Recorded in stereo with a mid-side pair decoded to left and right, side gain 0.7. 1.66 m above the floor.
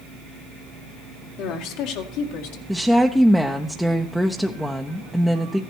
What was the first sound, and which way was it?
A woman speaking, 60° left.